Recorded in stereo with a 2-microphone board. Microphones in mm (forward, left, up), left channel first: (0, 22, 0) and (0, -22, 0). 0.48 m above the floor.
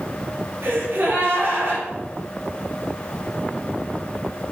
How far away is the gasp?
About 3.5 m.